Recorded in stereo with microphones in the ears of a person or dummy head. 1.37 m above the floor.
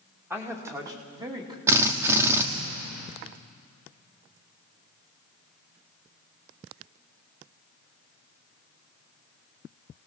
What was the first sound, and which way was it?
A man speaking, 10° right (ahead or behind).